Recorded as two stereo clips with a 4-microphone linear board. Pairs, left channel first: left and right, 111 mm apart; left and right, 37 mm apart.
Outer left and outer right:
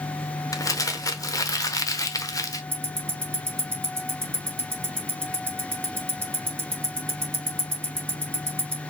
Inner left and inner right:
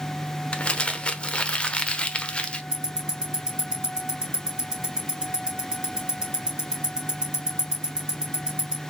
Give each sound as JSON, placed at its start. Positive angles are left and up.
{"t": 0.5, "sound": "crumpling", "side_deg": 30, "distance_m": 0.8}
{"t": 2.7, "sound": "ticking", "side_deg": -20, "distance_m": 2.5}